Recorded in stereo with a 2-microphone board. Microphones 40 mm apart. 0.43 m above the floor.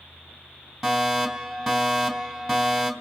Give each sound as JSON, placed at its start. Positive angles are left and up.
{"t": 0.8, "sound": "a fire alarm", "side_deg": -5, "distance_m": 3.0}